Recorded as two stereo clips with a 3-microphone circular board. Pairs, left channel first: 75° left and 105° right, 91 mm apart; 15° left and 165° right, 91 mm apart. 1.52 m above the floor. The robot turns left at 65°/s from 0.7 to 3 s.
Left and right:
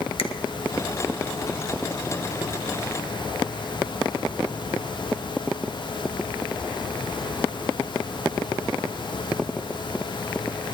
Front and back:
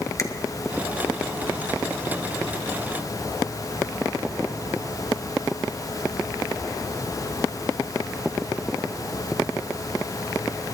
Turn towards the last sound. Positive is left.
turn(degrees=-75)